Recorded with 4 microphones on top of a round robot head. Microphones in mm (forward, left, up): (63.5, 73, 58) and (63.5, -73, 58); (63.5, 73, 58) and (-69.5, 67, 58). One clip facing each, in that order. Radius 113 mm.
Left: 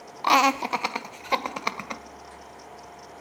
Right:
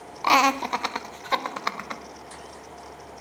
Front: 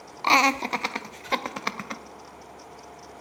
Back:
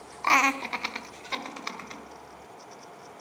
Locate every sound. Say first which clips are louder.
0.2 s laughter: even, front 3 dB; 10° right, 0.8 m; by 2.0 s 15° left, 1.9 m